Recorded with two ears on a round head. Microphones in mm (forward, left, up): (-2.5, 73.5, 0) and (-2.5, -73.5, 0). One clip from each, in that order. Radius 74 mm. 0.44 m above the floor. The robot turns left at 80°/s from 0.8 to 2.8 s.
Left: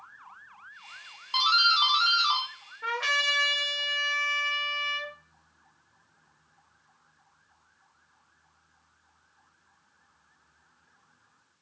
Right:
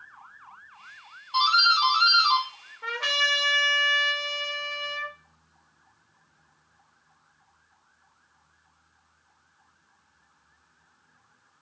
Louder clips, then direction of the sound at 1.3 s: Right 2 dB; 25° left (ahead or behind).